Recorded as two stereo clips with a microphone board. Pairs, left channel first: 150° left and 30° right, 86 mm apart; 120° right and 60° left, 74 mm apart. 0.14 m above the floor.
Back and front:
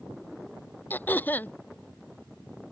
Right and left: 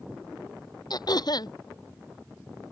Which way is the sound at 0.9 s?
140° right.